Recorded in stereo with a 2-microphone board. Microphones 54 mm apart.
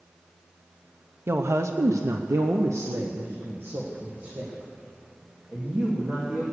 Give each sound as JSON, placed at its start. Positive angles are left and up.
{"t": 1.3, "sound": "a woman speaking", "side_deg": -50, "distance_m": 0.8}